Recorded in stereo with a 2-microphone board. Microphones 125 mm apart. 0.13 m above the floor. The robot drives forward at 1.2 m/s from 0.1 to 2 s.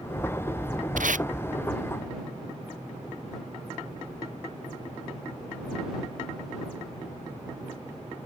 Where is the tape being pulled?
85° right; by 1.3 s 80° right.